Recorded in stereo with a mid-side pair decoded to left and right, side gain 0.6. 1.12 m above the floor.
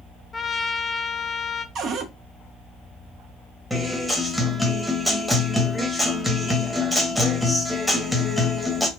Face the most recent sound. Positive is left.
turn(degrees=0)